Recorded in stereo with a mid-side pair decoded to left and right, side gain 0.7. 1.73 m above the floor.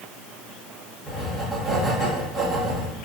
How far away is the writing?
About 2 m.